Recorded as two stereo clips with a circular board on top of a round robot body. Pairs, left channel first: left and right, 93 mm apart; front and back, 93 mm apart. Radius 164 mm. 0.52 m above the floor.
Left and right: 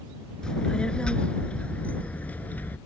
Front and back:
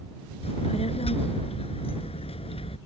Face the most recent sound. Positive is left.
turn(degrees=15)